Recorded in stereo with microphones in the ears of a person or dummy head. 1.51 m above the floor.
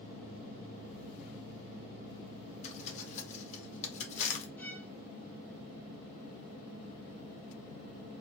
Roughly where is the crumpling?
Left.